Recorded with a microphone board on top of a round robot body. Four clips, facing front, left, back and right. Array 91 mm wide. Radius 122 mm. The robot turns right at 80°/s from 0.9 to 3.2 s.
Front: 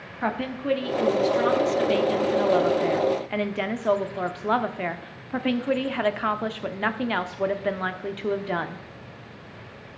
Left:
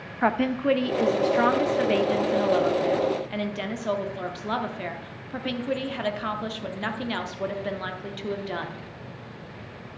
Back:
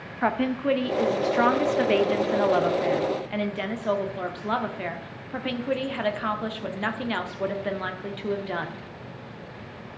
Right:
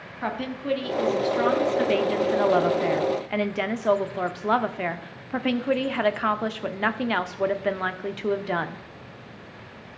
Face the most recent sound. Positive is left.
turn(degrees=-65)